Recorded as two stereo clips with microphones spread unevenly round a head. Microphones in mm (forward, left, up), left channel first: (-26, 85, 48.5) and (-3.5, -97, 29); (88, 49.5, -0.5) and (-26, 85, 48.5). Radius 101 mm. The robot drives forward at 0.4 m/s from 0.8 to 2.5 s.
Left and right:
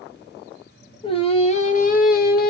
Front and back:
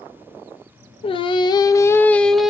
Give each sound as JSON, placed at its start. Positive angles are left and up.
{"t": 1.0, "sound": "singing", "azimuth_deg": 35, "distance_m": 0.7}